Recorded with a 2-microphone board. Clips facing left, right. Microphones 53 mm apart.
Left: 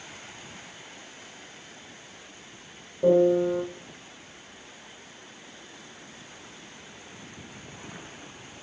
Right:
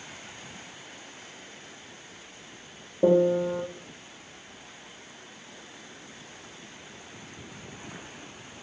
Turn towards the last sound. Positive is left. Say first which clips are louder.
# left 1 dB
turn(degrees=-35)  # may be behind; listen again after turning